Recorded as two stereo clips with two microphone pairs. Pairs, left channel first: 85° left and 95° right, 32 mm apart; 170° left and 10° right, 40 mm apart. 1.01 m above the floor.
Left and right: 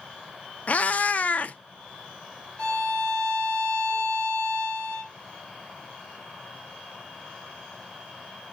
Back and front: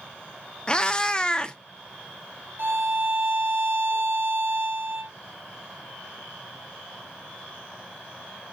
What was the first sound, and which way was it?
A cat meowing, 110° left.